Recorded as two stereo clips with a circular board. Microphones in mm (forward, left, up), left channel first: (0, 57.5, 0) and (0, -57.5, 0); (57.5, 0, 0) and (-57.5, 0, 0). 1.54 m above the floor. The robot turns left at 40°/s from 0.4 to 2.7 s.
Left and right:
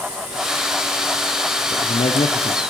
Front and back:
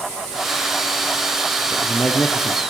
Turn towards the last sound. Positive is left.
turn(degrees=55)